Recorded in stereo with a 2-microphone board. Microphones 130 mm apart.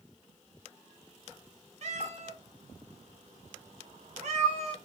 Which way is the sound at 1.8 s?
60° right (ahead or behind).